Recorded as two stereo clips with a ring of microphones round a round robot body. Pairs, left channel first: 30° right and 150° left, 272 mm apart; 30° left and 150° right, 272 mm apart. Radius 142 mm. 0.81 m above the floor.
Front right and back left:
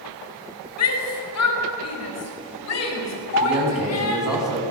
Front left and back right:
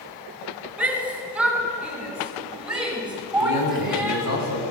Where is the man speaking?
60° left, 8 m.